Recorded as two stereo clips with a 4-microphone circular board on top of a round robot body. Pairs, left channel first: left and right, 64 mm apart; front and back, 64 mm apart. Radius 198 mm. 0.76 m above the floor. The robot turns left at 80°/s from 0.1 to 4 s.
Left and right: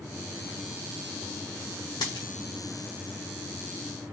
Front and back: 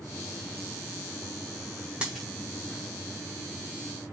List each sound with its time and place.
2.0 s a dropped coin: 105° left, 0.5 m; by 2.3 s 85° left, 0.5 m